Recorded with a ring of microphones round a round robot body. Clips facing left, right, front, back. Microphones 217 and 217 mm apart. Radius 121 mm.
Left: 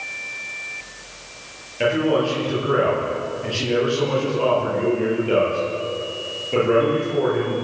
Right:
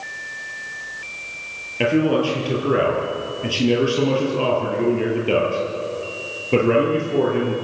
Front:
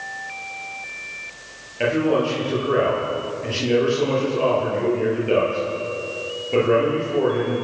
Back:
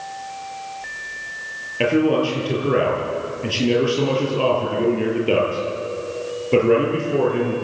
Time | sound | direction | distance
1.8 | a man speaking | 130° right | 9.5 m